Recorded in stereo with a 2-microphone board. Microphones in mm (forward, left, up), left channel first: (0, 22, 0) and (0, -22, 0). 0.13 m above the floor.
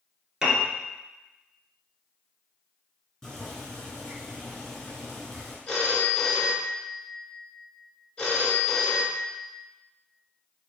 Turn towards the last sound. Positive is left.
turn(degrees=20)  # may be behind; listen again after turning